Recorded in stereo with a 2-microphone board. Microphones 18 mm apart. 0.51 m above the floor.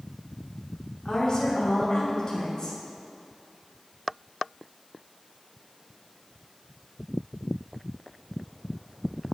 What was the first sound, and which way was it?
A woman speaking, 45° left (ahead or behind).